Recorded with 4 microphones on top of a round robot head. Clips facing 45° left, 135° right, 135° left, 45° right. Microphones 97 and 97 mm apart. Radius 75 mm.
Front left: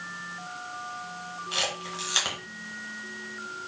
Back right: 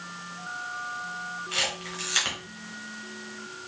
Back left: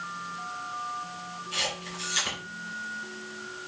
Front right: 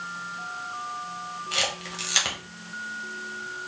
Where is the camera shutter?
25° right, 1.2 m.